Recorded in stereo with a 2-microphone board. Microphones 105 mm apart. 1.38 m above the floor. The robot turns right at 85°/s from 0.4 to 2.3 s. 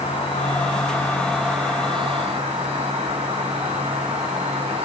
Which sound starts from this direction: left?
An insect, at 0.0 s.